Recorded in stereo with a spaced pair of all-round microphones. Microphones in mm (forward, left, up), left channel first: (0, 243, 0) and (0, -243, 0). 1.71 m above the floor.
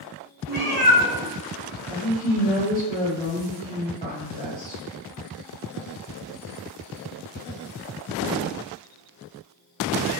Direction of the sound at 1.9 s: 15° left (ahead or behind).